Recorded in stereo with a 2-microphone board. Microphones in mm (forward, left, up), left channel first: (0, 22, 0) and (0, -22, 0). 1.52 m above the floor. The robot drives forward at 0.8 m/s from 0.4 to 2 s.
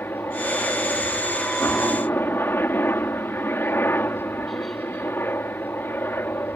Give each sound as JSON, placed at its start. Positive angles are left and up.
{"t": 0.0, "sound": "a helicopter", "side_deg": 55}